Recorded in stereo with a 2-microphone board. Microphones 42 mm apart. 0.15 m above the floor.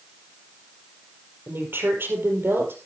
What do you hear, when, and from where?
1.5 s a woman speaking: 65° right (ahead or behind), 5 m